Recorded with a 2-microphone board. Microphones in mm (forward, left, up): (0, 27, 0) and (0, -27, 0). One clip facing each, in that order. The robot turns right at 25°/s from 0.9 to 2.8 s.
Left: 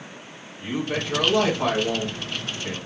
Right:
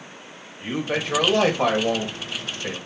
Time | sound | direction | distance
0.6 | a man speaking | 110° right | 1.6 m